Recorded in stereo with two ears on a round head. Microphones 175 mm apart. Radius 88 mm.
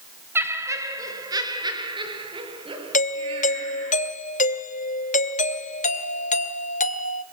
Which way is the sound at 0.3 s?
10° right (ahead or behind).